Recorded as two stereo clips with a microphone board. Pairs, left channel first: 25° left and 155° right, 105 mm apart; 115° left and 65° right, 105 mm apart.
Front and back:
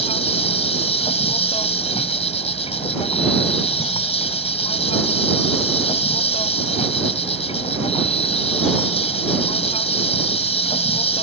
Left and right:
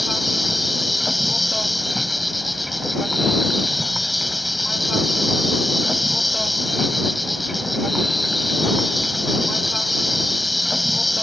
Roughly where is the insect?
Ahead.